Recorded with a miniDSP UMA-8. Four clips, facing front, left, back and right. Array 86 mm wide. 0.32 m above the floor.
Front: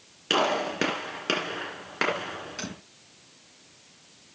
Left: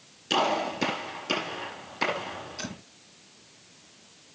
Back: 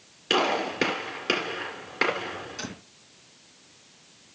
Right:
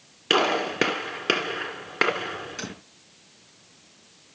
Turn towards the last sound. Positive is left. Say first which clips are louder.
# right 2 dB, even
turn(degrees=-50)